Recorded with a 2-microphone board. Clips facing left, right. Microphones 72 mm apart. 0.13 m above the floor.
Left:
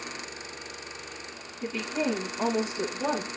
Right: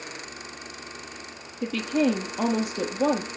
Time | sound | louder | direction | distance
1.6 | a woman speaking | right 6 dB | 70° right (ahead or behind) | 3.5 m